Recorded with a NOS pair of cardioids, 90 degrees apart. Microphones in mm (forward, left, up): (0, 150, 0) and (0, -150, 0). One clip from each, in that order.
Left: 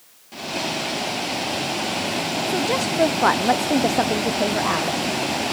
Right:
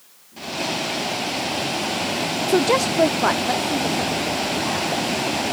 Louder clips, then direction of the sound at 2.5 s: Right 6 dB; 35° right.